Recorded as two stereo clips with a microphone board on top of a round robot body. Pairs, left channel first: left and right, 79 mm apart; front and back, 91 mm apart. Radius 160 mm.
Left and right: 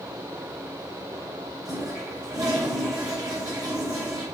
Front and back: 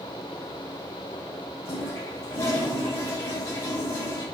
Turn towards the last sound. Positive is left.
turn(degrees=-55)